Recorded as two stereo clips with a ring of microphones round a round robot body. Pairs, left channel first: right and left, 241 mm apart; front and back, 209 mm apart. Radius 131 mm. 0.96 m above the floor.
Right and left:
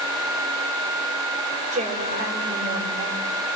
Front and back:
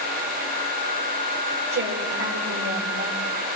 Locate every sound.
1.7 s a woman speaking: 155° left, 4 m